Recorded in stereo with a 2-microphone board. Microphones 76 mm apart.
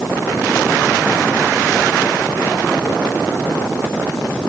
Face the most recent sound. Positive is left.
No sound to turn to.